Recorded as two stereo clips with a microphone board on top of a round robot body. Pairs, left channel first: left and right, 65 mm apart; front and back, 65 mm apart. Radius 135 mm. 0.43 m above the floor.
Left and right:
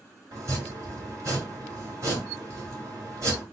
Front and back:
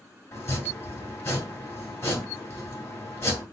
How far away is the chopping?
About 2.5 m.